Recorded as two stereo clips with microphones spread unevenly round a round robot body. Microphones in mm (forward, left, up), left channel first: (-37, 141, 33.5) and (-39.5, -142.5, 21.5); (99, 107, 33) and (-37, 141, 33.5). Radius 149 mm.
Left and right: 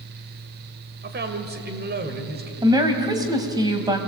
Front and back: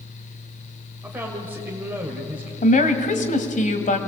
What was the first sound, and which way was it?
A man speaking, 120° right.